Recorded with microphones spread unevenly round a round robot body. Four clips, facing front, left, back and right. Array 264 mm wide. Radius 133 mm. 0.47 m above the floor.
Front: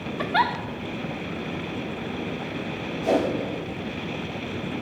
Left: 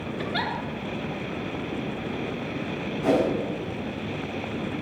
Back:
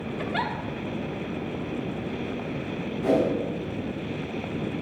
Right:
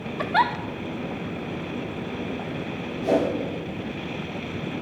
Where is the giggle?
50° right, 1.0 m.